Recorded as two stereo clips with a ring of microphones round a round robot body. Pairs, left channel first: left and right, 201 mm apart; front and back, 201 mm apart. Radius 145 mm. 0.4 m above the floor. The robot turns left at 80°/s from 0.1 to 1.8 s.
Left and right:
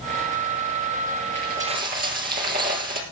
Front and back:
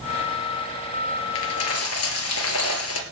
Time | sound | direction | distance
1.4 | a dropped coin | 10° left | 2.5 m